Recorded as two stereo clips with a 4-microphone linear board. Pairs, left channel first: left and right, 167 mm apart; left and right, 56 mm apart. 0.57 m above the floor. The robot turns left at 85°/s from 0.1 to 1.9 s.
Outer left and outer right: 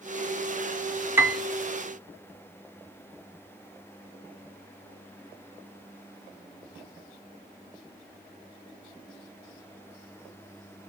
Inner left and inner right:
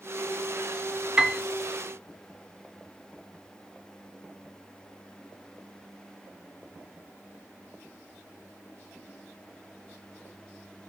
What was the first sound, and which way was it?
A piano, 15° right (ahead or behind).